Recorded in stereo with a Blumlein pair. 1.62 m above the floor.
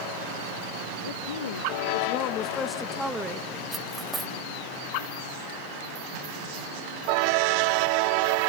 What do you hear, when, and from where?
1.0 s a woman speaking: 70° left, 2.5 m; by 3.5 s 20° right, 1.8 m
3.7 s cutlery clinking: 10° right, 2 m